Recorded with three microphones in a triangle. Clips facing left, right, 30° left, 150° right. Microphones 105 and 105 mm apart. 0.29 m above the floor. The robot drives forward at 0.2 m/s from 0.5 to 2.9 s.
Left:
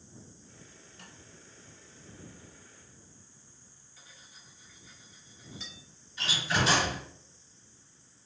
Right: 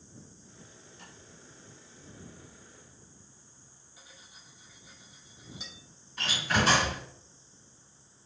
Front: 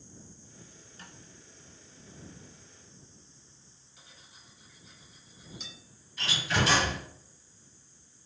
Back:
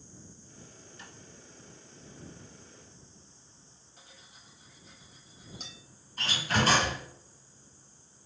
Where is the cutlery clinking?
155° right, 1.0 m.